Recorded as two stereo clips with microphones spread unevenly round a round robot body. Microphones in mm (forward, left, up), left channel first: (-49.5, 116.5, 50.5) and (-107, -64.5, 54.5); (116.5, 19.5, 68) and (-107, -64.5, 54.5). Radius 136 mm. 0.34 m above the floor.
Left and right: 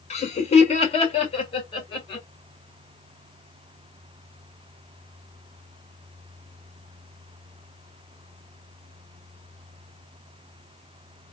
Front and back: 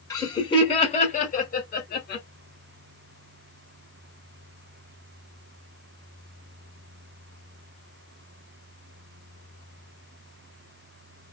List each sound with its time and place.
0.1 s laughter: 90° left, 1.8 m; by 2.2 s 20° left, 1.8 m